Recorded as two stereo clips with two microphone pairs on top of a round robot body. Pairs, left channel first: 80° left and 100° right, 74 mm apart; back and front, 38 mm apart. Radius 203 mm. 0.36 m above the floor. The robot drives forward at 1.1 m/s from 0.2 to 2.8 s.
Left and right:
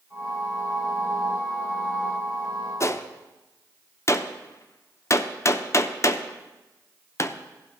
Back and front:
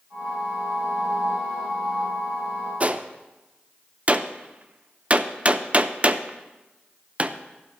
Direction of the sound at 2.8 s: 35° left.